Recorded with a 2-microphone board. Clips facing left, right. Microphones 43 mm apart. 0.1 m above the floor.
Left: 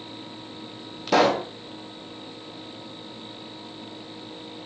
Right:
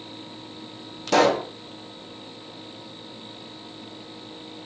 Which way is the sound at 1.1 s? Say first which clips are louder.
Right 1 dB; 5° left (ahead or behind).